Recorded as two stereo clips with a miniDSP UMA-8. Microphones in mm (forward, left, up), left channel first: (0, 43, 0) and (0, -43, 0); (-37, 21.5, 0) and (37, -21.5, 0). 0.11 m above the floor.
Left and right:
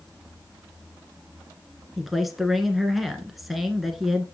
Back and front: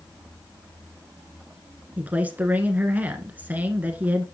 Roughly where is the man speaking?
Ahead.